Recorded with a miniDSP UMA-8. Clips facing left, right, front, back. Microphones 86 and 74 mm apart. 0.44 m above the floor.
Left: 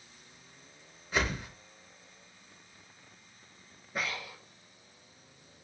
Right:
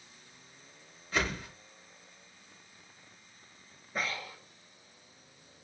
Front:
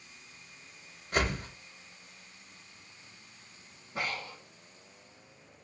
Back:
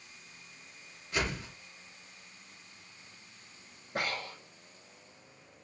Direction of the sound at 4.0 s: Straight behind.